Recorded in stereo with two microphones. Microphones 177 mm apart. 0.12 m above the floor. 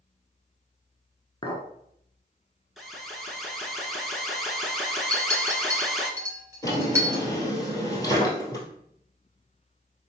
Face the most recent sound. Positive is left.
turn(degrees=20)  # may be behind; listen again after turning